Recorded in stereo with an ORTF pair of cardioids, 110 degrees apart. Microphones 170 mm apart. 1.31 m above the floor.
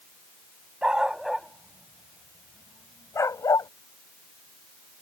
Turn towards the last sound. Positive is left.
turn(degrees=25)